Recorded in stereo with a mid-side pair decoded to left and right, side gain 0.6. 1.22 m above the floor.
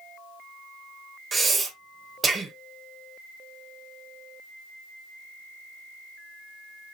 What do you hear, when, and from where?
1.3 s breathing: 25° right, 0.9 m